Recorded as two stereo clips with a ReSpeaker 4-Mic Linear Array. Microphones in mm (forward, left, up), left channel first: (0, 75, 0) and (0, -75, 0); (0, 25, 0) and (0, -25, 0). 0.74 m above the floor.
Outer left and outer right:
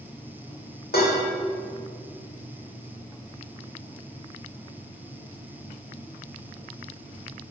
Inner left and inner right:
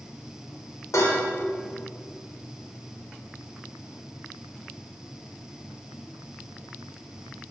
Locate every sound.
0.9 s dishes clattering: 80° left, 1.7 m